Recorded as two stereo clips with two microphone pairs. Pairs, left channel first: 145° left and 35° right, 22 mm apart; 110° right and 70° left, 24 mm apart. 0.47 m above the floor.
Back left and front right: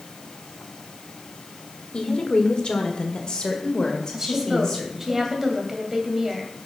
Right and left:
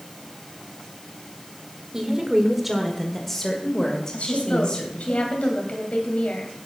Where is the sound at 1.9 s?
130° left, 1.6 m; by 5.1 s 155° right, 2.5 m.